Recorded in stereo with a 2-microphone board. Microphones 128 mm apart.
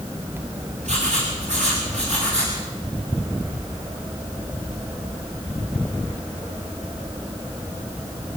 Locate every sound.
0.8 s writing: 65° right (ahead or behind), 8.5 m